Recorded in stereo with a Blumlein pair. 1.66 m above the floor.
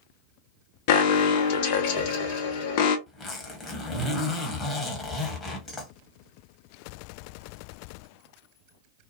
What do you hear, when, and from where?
0.9 s an alarm: 45° left, 0.7 m
3.1 s a zipper: 15° left, 1.0 m